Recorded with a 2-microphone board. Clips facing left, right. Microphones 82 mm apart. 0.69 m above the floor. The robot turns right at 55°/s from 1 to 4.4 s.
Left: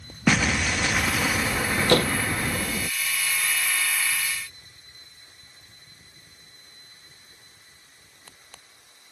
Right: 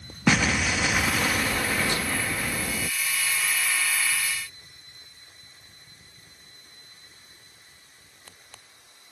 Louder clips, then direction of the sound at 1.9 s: Left 8 dB; 70° left (ahead or behind).